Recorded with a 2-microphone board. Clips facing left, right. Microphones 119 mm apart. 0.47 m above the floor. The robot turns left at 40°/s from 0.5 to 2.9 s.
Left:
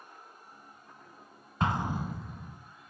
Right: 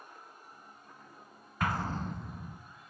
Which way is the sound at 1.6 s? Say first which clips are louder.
Left 3 dB; 25° left.